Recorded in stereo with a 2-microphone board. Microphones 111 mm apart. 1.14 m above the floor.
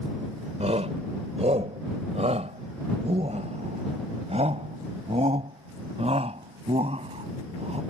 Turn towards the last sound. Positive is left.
turn(degrees=-65)  # may be behind; listen again after turning